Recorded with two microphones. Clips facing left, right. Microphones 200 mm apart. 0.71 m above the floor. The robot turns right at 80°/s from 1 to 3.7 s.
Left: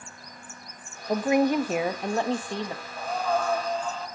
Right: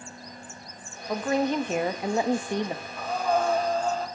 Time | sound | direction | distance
1.1 | a woman speaking | 20° left (ahead or behind) | 0.9 m
3.0 | breathing | 165° left | 3 m